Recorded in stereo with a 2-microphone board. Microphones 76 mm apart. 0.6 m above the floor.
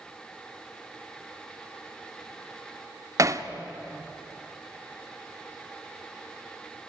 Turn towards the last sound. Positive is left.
turn(degrees=-45)  # may be behind; listen again after turning